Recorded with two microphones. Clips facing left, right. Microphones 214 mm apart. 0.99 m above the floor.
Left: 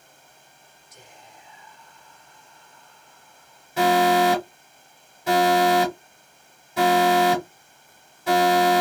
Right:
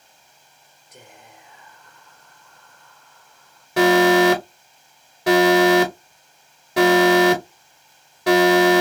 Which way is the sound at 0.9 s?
60° right (ahead or behind).